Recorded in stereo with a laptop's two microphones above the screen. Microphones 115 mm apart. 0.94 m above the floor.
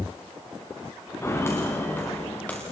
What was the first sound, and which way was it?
Footsteps, 25° left (ahead or behind).